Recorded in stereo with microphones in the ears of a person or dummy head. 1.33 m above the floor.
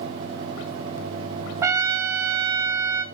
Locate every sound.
1.6 s a trumpet: 15° right (ahead or behind), 1.1 m